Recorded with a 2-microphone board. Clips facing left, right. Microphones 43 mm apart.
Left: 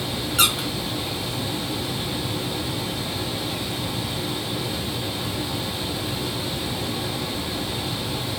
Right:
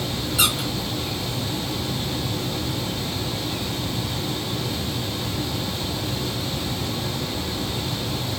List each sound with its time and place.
0.4 s a squeak: 50° left (ahead or behind), 0.9 m